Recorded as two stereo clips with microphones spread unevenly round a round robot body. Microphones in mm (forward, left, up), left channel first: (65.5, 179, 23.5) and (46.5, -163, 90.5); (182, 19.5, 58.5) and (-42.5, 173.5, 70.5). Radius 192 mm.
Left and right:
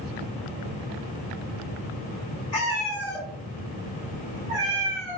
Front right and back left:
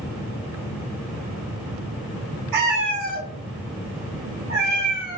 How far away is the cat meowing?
About 1.7 m.